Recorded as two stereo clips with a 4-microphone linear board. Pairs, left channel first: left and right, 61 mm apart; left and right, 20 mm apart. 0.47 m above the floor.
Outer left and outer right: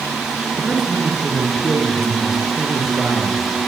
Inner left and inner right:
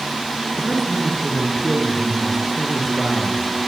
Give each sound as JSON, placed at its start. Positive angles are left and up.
{"t": 0.6, "sound": "a man speaking", "side_deg": -5, "distance_m": 6.5}